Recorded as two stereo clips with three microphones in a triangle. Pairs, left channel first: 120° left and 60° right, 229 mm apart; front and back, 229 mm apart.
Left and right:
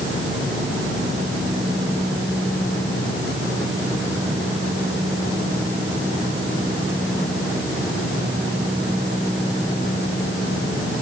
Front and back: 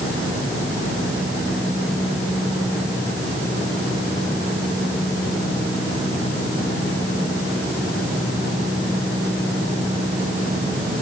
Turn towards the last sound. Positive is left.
No sound to turn to.